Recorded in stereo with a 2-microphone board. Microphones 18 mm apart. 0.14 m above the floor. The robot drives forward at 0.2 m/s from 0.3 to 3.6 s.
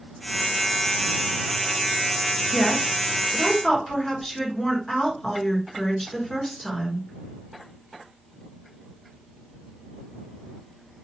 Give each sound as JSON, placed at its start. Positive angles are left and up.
{"t": 2.5, "sound": "a woman speaking", "side_deg": 20, "distance_m": 1.6}